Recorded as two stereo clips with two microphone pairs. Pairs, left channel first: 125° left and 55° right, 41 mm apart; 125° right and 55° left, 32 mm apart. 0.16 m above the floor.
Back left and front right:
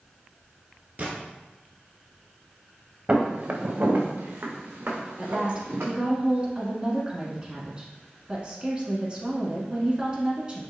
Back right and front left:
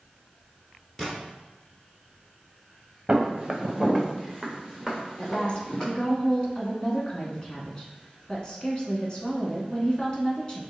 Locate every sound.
1.0 s a gunshot: 45° right, 1.7 m
3.1 s footsteps: 5° right, 1.0 m; by 5.9 s 50° right, 2.5 m
5.2 s a woman speaking: 85° right, 1.4 m